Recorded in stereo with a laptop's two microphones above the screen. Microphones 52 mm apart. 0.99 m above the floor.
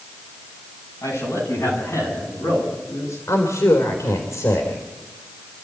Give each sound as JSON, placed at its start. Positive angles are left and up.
{"t": 1.0, "sound": "a man speaking", "side_deg": 60, "distance_m": 7.5}
{"t": 3.3, "sound": "a woman speaking", "side_deg": 80, "distance_m": 3.5}